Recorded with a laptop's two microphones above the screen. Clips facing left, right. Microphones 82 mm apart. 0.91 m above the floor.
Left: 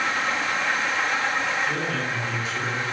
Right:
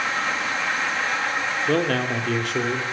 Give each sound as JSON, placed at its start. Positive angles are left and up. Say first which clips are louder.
{"t": 1.7, "sound": "a man speaking", "louder": "right 5 dB", "side_deg": -65, "distance_m": 3.0}